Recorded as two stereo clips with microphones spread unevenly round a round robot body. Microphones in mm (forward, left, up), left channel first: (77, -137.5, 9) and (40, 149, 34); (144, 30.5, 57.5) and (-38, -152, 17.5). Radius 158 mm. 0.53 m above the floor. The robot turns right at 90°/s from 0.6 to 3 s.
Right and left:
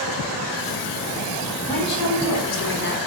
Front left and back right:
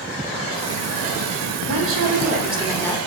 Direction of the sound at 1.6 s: 150° right.